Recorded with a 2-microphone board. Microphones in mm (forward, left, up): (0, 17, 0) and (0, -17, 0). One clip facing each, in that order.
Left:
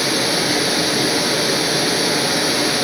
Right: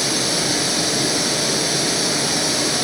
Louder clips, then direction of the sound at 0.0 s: Left 3 dB; 20° left (ahead or behind).